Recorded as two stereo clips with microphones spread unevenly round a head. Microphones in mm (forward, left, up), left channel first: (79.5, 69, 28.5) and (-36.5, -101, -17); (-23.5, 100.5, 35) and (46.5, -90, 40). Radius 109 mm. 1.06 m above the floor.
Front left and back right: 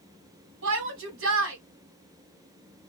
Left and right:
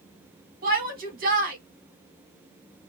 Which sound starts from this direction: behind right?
A shout, at 0.6 s.